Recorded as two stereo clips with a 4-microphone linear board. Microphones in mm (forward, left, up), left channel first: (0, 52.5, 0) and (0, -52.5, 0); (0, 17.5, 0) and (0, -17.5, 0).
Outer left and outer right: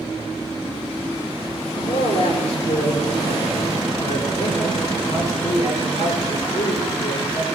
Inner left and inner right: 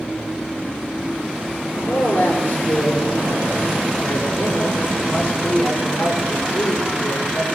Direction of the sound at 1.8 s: 60° left (ahead or behind).